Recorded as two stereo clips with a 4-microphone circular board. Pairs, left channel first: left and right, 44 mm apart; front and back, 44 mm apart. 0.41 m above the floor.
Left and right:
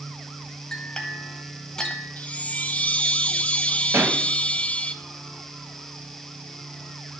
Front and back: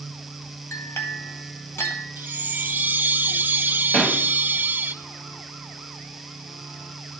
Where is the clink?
15° left, 1.2 m.